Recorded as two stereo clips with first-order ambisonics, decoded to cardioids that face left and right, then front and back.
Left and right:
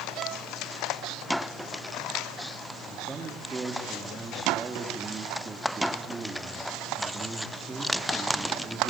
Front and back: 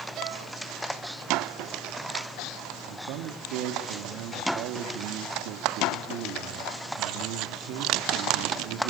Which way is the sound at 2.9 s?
165° right.